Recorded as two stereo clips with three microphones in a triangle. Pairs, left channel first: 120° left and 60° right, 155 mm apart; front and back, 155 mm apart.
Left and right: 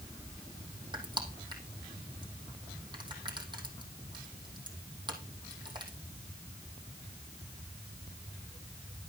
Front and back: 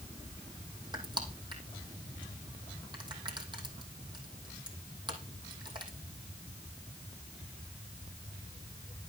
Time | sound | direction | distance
0.9 | crushing | 120° right | 3.5 m